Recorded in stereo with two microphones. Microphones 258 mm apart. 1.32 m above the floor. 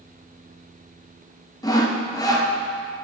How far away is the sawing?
About 0.7 m.